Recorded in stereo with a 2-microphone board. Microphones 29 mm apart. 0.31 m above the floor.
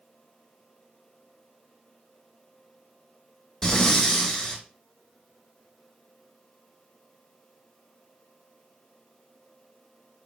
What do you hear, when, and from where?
3.6 s breathing: 20° left (ahead or behind), 1.1 m